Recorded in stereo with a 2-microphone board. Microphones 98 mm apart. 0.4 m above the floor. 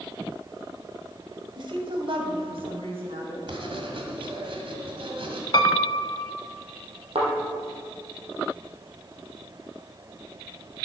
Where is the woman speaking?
55° right (ahead or behind), 1.7 m; by 3.4 s 75° right (ahead or behind), 3.5 m.